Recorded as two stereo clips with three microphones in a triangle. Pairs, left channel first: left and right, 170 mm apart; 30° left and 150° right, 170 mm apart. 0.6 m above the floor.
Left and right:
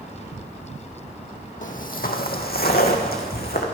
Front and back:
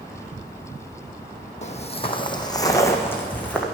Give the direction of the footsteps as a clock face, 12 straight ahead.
10 o'clock.